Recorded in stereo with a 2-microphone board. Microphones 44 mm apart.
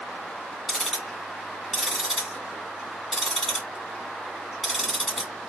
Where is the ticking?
5° right (ahead or behind), 1.9 m.